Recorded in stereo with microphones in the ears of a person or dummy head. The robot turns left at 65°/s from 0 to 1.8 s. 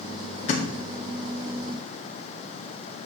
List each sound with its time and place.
0.5 s a thud: 35° left (ahead or behind), 1.7 m; by 0.7 s 25° left (ahead or behind), 1.7 m